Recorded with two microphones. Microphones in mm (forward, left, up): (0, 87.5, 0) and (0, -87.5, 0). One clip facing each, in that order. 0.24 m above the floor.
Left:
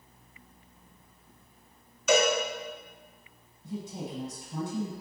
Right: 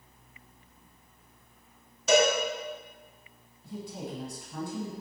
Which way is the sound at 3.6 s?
25° left (ahead or behind).